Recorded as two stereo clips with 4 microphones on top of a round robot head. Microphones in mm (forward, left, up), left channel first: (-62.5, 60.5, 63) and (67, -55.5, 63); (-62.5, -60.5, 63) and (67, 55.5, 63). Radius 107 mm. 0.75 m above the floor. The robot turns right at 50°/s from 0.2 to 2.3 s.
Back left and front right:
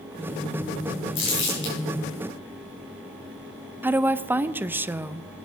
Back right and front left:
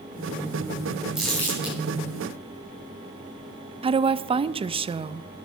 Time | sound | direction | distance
1.1 | crumpling | 130° left | 6.5 m
3.8 | a woman speaking | 25° left | 0.5 m